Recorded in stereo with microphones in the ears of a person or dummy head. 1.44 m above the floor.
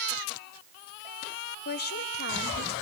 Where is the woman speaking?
55° left (ahead or behind), 1.2 m.